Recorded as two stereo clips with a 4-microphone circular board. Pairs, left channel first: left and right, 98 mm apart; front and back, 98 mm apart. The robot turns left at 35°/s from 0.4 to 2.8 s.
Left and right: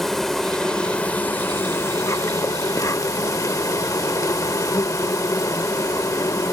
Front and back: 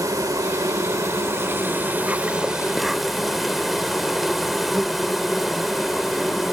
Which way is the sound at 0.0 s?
175° left.